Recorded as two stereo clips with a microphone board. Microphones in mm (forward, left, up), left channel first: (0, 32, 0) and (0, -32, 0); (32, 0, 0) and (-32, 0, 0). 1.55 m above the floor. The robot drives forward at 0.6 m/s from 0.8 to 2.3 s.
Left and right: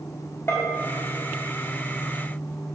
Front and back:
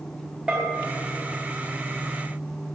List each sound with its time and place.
0.5 s a bell: 115° left, 1.3 m